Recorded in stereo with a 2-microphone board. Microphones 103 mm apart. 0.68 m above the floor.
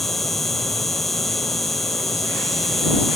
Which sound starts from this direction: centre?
An insect, at 0.0 s.